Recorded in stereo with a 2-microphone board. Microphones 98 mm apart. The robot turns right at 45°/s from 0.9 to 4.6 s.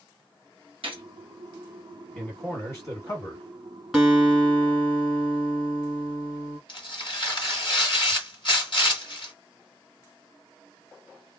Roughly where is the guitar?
Centre.